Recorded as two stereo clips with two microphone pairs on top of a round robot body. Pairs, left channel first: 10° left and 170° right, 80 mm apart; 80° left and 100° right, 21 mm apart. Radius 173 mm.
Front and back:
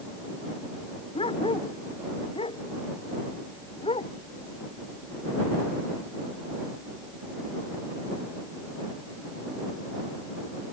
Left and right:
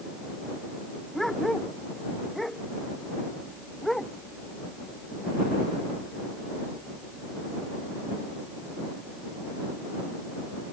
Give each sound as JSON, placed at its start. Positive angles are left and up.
{"t": 1.1, "sound": "a dog barking", "azimuth_deg": -5}